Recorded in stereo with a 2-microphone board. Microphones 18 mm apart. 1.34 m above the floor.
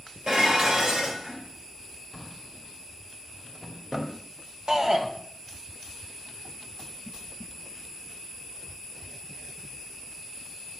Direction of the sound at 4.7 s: 50° right (ahead or behind).